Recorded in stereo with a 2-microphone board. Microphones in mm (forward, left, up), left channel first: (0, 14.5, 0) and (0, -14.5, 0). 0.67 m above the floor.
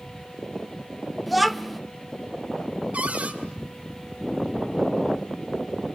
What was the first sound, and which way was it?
A child speaking, centre (ahead or behind).